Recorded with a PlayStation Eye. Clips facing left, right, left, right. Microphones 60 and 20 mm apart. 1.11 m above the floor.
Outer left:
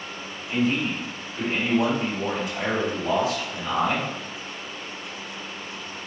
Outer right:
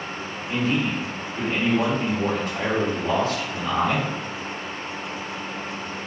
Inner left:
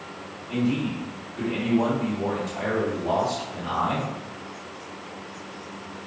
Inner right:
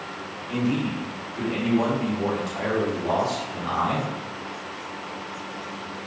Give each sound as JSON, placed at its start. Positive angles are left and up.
{"t": 0.5, "sound": "a man speaking", "side_deg": -55, "distance_m": 1.4}